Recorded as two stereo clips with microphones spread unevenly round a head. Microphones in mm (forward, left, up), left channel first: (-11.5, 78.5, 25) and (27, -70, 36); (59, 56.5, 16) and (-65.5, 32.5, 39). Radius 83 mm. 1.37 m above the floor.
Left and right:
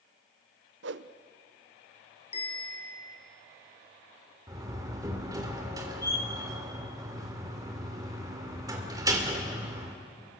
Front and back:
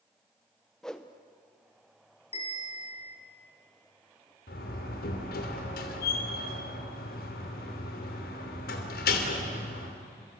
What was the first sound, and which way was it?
A whoosh, 75° right.